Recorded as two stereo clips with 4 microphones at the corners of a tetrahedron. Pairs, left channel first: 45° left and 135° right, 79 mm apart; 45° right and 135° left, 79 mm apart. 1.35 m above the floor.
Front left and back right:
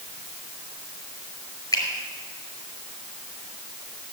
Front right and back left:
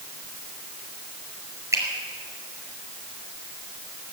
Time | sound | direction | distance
1.7 | a finger snap | 90° left | 5 m